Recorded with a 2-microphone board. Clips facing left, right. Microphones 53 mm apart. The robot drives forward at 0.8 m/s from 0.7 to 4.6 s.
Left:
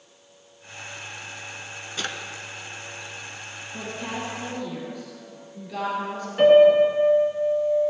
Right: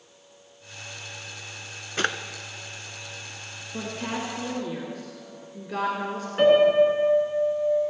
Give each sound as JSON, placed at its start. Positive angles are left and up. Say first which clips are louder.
{"t": 2.0, "sound": "a drawer", "louder": "right 6 dB", "side_deg": -45, "distance_m": 0.6}
{"t": 3.7, "sound": "a woman speaking", "louder": "right 1 dB", "side_deg": -65, "distance_m": 2.5}
{"t": 6.4, "sound": "a piano", "louder": "left 3 dB", "side_deg": -20, "distance_m": 3.0}